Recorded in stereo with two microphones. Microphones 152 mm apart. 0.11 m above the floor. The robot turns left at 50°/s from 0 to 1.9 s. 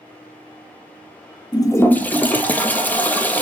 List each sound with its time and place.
1.5 s a toilet flushing: 30° left (ahead or behind), 0.5 m; by 3.4 s 10° left (ahead or behind), 0.5 m